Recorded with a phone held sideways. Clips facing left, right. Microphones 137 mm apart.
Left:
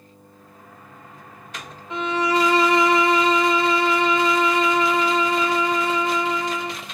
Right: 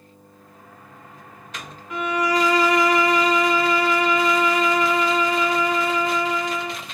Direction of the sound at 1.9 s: 25° left (ahead or behind).